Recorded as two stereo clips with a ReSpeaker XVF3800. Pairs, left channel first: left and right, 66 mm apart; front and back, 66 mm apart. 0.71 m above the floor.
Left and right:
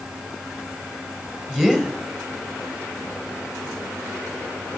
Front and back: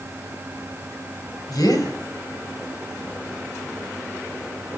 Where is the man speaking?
15° right, 3.5 m.